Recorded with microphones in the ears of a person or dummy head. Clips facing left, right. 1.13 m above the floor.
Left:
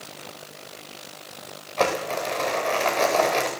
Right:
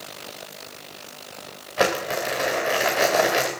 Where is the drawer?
No drawer in this recording.